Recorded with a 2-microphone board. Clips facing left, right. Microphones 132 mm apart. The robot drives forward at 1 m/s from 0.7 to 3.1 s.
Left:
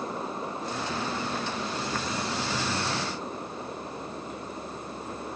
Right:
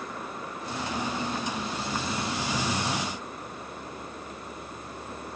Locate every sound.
Only background noise.